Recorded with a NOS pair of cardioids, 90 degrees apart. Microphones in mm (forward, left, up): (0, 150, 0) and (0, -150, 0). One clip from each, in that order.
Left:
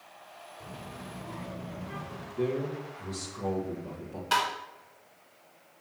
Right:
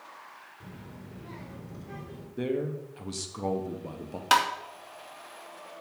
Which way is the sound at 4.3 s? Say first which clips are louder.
Right 4 dB; 70° right.